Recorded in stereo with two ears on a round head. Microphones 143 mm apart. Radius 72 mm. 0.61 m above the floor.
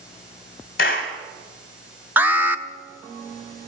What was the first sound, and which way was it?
A clap, 60° left (ahead or behind).